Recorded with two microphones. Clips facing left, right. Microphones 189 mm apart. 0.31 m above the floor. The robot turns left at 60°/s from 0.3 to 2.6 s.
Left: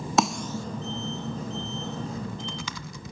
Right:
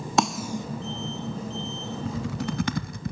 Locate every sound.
0.2 s a snare drum: centre (ahead or behind), 0.7 m; by 0.7 s 20° right (ahead or behind), 0.7 m
2.0 s typing on a keyboard: 80° right, 0.8 m; by 3.1 s 50° right (ahead or behind), 0.8 m